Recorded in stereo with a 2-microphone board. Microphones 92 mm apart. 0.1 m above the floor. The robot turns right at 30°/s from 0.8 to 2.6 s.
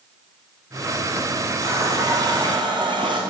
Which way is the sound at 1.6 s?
30° right (ahead or behind).